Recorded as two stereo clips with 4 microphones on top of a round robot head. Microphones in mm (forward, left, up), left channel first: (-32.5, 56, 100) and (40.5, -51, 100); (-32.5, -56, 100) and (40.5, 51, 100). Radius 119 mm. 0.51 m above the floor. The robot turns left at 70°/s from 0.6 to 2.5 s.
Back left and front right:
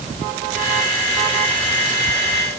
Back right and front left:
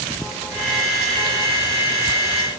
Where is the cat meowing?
I don't hear a cat meowing.